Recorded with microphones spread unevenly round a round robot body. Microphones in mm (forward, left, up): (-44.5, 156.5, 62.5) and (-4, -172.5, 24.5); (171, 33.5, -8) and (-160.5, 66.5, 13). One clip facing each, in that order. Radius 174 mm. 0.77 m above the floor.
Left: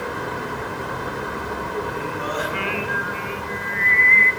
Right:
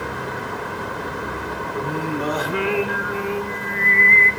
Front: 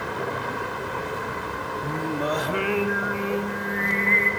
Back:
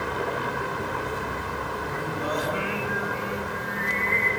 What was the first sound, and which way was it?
Singing, 40° right.